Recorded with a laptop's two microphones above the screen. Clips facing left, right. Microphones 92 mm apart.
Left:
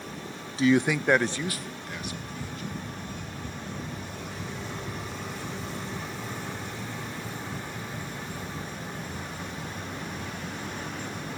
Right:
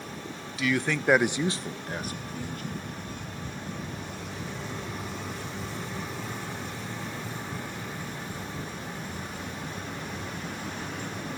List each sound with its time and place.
0.6 s a man speaking: 35° left (ahead or behind), 0.6 m; by 2.9 s 55° right (ahead or behind), 1.6 m